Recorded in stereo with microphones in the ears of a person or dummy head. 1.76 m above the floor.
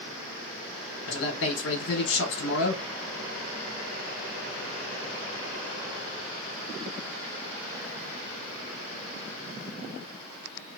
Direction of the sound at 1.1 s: 75° left (ahead or behind).